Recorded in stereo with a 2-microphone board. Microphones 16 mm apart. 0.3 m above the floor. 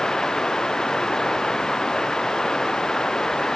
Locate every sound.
0.0 s running water: 40° left (ahead or behind)